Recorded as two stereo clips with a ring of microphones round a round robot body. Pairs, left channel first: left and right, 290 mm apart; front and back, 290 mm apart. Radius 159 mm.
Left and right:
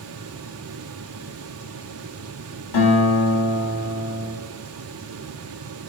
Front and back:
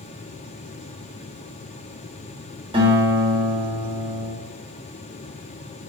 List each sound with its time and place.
2.7 s a guitar: 110° left, 3.5 m